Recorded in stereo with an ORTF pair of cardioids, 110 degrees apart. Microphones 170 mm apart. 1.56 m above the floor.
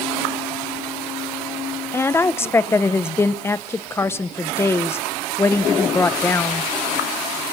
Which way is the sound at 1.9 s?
15° left.